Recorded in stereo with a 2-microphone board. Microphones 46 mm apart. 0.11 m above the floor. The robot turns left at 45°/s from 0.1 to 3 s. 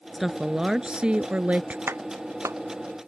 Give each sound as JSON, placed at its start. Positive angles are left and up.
{"t": 0.1, "sound": "a woman speaking", "azimuth_deg": 0}
{"t": 1.9, "sound": "a clap", "side_deg": -55}